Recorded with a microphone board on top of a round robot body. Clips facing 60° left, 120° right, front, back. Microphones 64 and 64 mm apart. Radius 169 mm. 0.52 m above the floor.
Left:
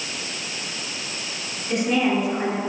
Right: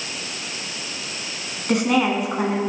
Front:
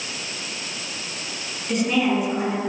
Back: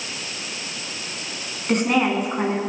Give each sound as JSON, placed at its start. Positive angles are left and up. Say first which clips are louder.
{"t": 1.7, "sound": "a woman speaking", "louder": "right 2 dB, back 1 dB", "azimuth_deg": -135, "distance_m": 8.0}